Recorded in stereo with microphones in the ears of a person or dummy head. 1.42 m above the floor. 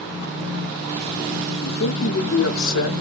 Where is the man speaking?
70° left (ahead or behind), 1.0 m.